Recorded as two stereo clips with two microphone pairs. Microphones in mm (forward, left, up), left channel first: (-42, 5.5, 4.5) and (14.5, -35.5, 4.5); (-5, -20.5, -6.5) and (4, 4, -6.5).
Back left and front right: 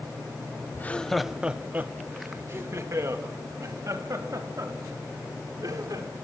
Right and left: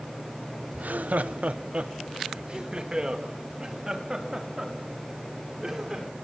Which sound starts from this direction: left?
Laughter, at 0.7 s.